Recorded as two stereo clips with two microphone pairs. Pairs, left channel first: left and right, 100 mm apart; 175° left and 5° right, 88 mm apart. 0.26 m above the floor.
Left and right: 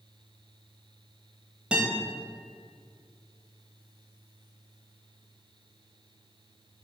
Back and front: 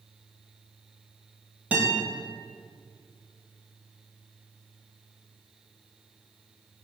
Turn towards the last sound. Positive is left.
turn(degrees=-30)